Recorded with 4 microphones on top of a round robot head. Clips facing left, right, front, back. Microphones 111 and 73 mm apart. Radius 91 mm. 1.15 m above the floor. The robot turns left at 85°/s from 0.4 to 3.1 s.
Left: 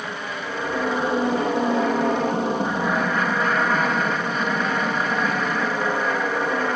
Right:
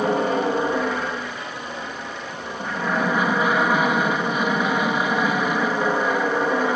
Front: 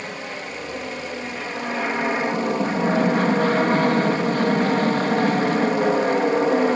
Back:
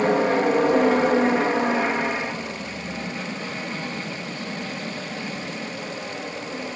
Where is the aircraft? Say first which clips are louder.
Right 11 dB, back 13 dB; 140° right; by 6.8 s 10° right.